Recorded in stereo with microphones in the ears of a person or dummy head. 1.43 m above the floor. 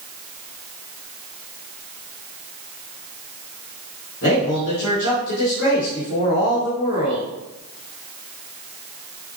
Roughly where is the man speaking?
Left.